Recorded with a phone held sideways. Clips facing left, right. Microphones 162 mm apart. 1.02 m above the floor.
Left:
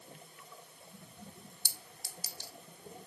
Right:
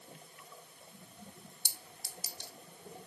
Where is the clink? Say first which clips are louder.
Even; 20° right (ahead or behind), 1.0 m.